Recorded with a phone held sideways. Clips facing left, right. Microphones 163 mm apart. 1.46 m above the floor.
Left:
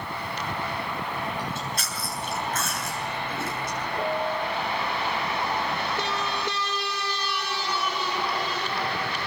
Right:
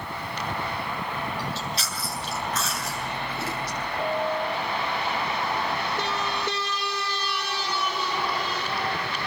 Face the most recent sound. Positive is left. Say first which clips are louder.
# right 1 dB
turn(degrees=55)  # may be behind; listen again after turning